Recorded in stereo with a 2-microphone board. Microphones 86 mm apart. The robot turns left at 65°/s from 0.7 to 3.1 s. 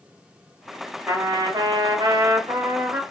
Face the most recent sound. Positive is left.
turn(degrees=-160)